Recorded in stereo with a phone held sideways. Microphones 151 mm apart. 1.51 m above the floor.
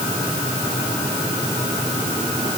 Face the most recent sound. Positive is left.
No sound to turn to.